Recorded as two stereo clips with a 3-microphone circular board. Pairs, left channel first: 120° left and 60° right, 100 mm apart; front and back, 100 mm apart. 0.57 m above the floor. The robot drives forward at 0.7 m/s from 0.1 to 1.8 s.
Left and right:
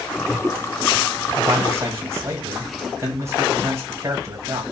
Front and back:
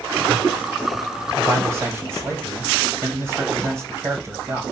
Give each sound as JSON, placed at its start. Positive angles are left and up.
{"t": 1.4, "sound": "a man speaking", "azimuth_deg": -110, "distance_m": 3.5}